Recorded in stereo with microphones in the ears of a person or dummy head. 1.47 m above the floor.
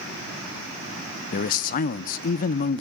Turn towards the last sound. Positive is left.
turn(degrees=40)  # may be behind; listen again after turning